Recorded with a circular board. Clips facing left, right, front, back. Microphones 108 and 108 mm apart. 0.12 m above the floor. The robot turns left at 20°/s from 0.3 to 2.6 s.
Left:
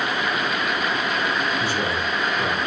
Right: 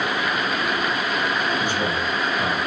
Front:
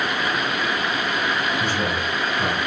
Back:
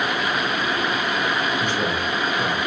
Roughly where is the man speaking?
Ahead right.